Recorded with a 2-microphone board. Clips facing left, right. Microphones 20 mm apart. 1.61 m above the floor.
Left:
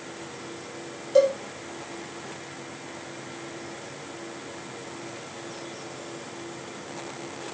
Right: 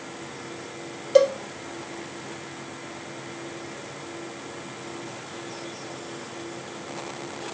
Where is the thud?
I don't hear a thud.